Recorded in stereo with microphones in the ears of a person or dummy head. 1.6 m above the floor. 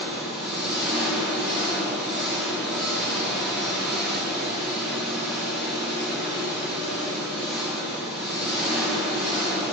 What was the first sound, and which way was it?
An engine running, 5° right (ahead or behind).